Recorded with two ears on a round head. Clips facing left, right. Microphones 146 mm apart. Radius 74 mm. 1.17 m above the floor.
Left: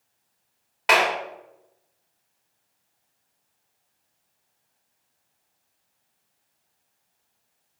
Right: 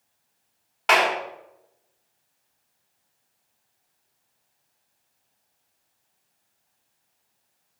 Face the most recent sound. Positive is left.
turn(degrees=5)  # may be behind; listen again after turning